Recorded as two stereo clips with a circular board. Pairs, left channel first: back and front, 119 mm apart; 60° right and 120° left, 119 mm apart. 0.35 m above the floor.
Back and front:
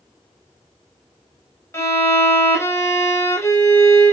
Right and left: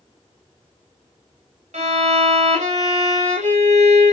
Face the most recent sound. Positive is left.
turn(degrees=115)